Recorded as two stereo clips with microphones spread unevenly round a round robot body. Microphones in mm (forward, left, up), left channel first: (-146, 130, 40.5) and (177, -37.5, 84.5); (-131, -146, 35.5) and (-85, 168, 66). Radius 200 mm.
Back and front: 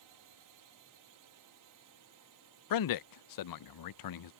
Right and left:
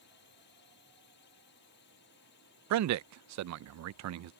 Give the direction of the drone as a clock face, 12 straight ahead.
2 o'clock.